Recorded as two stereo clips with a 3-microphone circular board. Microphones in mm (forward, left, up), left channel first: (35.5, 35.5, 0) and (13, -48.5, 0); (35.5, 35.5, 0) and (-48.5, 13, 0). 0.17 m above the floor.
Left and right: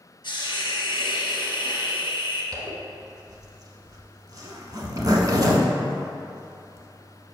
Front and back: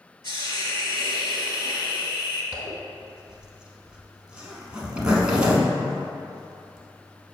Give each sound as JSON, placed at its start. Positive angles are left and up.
{"t": 0.2, "sound": "a hiss", "azimuth_deg": 45, "distance_m": 1.4}
{"t": 2.5, "sound": "a zipper", "azimuth_deg": -90, "distance_m": 0.9}